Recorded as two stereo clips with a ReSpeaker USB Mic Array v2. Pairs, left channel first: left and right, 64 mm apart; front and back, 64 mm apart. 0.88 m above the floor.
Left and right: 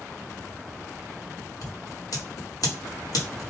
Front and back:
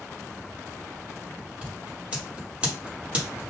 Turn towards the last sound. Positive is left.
turn(degrees=110)